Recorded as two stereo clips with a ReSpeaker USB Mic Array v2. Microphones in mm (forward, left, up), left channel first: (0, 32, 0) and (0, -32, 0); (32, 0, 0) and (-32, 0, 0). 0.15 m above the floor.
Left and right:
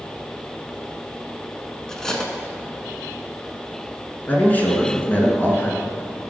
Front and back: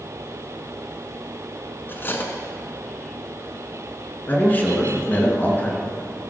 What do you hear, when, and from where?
1.9 s cutlery clinking: 15° left, 1.0 m
4.3 s a man speaking: 45° left, 1.9 m